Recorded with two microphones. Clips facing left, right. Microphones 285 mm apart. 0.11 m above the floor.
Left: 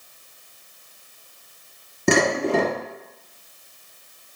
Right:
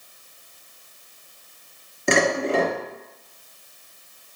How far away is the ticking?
No ticking in this recording.